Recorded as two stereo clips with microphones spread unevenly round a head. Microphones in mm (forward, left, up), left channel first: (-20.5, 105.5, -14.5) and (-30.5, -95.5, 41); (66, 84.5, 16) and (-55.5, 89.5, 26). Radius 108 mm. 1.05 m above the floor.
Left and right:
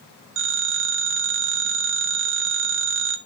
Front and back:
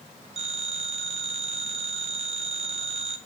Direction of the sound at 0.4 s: 120° right.